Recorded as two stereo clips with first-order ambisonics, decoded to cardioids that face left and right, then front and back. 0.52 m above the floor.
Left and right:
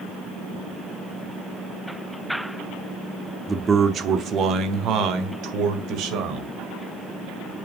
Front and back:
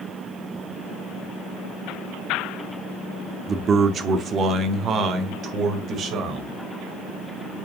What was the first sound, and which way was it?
A man speaking, 150° right.